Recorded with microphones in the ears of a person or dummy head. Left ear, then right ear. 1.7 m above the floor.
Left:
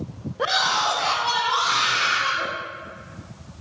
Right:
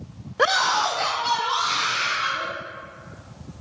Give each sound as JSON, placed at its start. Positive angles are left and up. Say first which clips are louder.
{"t": 0.4, "sound": "a scream", "louder": "right 1 dB", "side_deg": -80, "distance_m": 0.6}